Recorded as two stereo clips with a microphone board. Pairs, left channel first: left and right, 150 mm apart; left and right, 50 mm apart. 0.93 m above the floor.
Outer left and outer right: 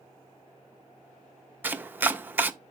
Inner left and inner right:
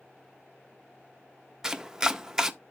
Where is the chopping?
15° right (ahead or behind), 0.5 m.